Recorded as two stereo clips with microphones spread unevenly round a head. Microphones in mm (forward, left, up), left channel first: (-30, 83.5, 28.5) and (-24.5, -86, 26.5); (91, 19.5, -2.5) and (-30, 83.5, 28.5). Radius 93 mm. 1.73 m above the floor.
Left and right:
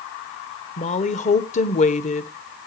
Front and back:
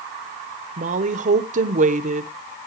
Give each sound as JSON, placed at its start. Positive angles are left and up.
{"t": 0.8, "sound": "a woman speaking", "azimuth_deg": 140, "distance_m": 1.0}